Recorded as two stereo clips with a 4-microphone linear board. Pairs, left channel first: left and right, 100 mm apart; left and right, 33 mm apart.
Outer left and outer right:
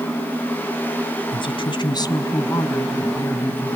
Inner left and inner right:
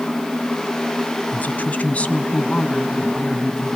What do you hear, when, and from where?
1.3 s a woman speaking: 55° left (ahead or behind), 1.6 m; by 3.8 s 15° left (ahead or behind), 3.5 m